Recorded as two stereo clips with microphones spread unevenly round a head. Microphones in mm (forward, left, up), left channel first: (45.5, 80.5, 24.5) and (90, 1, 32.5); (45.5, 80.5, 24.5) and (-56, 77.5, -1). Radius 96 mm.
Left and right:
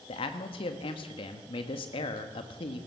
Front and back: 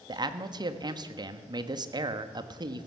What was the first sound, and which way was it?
A man speaking, 145° left.